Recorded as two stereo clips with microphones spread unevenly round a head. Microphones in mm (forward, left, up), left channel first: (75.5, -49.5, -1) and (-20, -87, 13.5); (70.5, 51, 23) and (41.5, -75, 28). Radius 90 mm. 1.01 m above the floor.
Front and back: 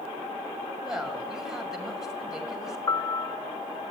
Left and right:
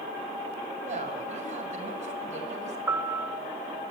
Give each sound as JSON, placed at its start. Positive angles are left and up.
{"t": 0.8, "sound": "a woman speaking", "azimuth_deg": -75, "distance_m": 6.0}
{"t": 2.9, "sound": "a piano", "azimuth_deg": -35, "distance_m": 0.6}